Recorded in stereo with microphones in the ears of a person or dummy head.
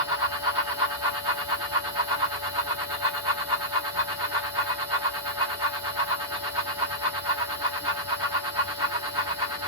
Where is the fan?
25° right (ahead or behind), 1.0 m.